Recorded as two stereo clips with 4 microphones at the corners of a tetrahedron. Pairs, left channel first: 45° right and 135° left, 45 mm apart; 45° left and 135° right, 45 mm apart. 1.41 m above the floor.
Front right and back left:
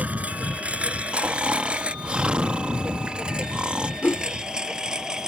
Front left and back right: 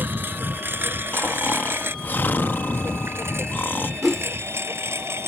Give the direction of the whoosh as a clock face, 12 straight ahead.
2 o'clock.